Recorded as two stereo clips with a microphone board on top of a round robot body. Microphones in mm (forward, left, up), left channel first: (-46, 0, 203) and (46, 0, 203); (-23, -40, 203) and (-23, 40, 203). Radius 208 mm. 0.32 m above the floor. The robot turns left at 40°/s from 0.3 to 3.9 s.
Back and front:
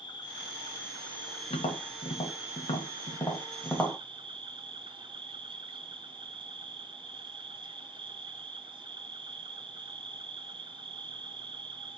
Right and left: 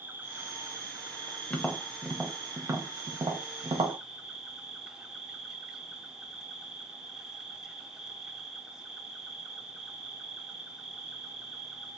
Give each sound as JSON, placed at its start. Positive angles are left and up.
{"t": 0.0, "sound": "an insect", "azimuth_deg": 150, "distance_m": 0.9}
{"t": 1.5, "sound": "tapping", "azimuth_deg": -165, "distance_m": 1.2}